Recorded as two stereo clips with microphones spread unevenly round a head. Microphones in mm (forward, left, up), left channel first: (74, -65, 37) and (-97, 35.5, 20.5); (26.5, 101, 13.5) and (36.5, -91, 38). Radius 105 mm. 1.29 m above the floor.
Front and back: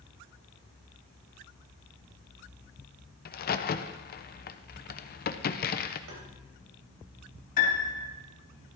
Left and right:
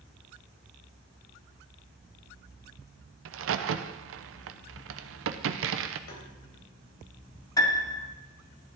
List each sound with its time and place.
3.2 s a crack: 75° right, 0.8 m
6.1 s tapping: 125° left, 3.5 m
7.6 s a piano: 20° left, 2.5 m